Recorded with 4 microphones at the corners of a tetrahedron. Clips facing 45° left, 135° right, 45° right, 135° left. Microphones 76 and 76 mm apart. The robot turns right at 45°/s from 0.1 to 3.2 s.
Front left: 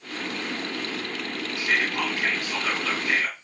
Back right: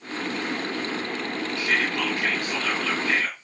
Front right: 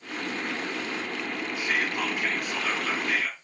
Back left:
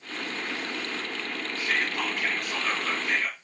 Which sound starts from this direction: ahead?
Whispering, at 1.6 s.